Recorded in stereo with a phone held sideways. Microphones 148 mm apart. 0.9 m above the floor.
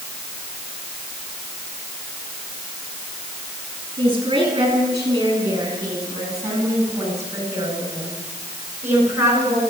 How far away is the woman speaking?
About 9 m.